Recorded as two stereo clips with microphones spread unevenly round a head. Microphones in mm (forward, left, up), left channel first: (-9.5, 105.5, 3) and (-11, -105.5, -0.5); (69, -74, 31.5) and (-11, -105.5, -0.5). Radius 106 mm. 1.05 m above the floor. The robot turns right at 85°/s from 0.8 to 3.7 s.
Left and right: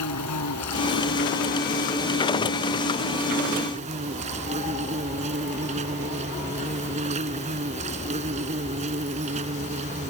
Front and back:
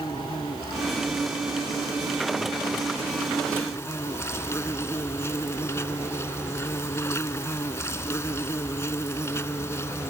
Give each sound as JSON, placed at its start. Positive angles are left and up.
{"t": 0.0, "sound": "an insect", "azimuth_deg": 85}